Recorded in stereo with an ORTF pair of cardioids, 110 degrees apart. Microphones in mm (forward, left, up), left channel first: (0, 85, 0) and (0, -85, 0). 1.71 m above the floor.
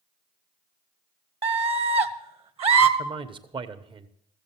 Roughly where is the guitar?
I don't hear a guitar.